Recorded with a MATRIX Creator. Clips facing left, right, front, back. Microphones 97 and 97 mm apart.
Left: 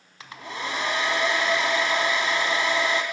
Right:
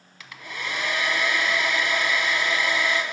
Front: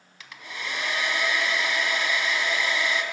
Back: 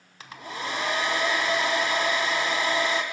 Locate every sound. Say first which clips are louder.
0.2 s a hair dryer: left 2 dB, back 4 dB; 140° left, 0.5 m